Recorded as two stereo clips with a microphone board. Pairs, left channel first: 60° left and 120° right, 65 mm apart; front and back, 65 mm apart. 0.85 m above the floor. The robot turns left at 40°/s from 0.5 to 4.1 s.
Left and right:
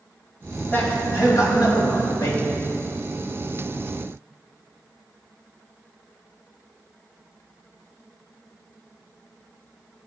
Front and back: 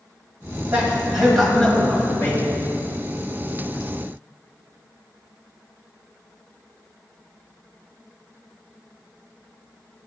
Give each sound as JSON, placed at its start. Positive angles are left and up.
{"t": 0.7, "sound": "a man speaking", "azimuth_deg": 115, "distance_m": 4.5}